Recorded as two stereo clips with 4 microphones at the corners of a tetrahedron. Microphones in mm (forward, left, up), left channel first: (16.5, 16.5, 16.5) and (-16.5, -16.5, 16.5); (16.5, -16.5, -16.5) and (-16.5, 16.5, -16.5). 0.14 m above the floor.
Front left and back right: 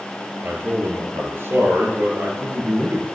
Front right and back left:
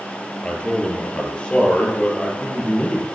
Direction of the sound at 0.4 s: 110° right.